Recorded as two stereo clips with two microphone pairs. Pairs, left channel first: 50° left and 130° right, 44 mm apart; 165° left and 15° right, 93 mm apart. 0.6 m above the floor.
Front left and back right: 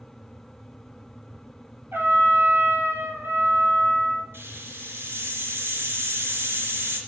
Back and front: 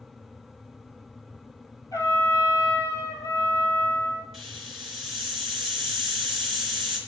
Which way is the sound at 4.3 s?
110° right.